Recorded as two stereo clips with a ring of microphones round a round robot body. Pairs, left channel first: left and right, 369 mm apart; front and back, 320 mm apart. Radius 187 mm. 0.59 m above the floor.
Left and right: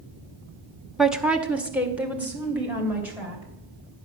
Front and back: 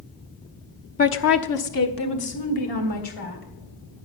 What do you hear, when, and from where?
1.0 s a woman speaking: straight ahead, 0.6 m; by 3.4 s 5° right, 3.5 m